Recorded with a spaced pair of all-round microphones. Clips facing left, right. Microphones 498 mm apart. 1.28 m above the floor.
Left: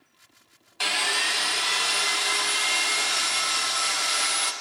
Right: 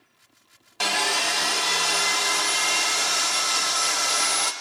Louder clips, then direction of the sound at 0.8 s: Right 5 dB; 65° right (ahead or behind).